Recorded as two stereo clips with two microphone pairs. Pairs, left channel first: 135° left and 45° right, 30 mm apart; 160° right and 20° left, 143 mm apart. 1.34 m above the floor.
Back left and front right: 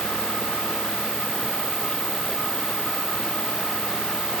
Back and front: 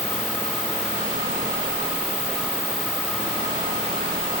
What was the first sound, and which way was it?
Only background noise.